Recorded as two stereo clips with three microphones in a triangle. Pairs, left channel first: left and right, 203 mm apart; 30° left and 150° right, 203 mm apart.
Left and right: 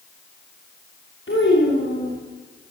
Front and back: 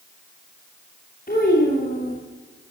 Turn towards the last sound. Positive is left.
turn(degrees=75)